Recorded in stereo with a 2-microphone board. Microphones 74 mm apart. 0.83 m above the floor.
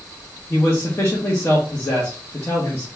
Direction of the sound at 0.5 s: 30° left (ahead or behind).